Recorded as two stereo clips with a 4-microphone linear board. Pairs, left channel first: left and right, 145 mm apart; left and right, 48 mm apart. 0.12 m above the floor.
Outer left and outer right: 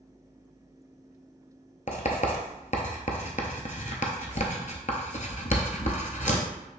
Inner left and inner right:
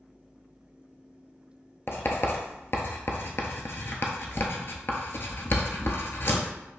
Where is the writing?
60° left (ahead or behind), 0.7 m.